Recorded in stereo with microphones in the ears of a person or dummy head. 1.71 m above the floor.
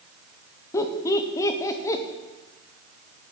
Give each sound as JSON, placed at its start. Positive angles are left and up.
{"t": 0.7, "sound": "laughter", "side_deg": 15, "distance_m": 0.7}